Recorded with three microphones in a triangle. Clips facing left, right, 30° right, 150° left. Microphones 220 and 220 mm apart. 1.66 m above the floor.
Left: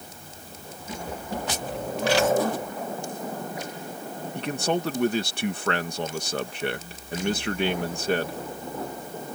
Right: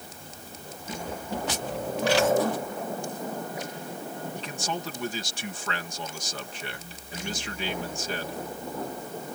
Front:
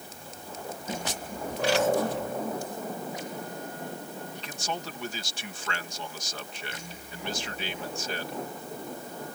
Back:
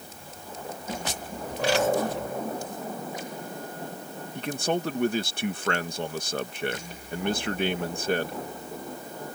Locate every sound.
4.3 s a man speaking: 115° left